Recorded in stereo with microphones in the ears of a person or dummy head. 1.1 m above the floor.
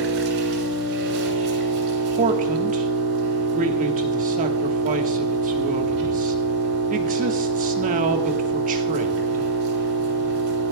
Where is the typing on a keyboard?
I don't hear typing on a keyboard.